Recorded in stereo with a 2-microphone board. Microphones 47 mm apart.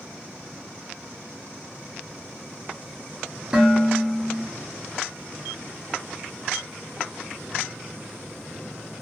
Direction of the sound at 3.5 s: 15° right (ahead or behind).